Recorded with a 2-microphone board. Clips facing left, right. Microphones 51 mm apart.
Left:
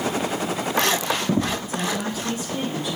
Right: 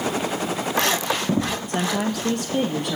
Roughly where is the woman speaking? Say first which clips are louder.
Right 3 dB; right.